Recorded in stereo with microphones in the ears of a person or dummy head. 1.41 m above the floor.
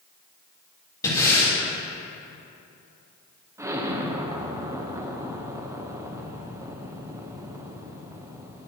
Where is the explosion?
10° right (ahead or behind), 0.9 m.